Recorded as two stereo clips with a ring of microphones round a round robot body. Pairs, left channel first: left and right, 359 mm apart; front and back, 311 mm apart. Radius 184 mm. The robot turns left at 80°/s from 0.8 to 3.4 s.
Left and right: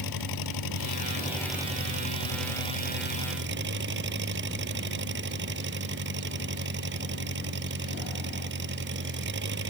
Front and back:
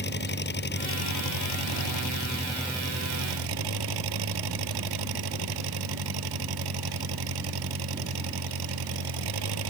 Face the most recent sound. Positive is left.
turn(degrees=-150)